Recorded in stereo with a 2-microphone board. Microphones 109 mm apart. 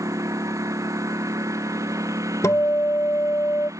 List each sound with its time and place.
0.0 s a lawn mower: 30° right (ahead or behind)
2.4 s a guitar: 30° left (ahead or behind)